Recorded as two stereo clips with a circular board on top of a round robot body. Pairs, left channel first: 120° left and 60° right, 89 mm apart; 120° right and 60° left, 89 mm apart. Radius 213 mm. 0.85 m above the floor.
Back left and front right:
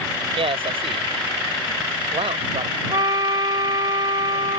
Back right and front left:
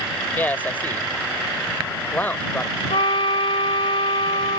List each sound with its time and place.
0.3 s a man speaking: 50° right
2.9 s a trumpet: 100° right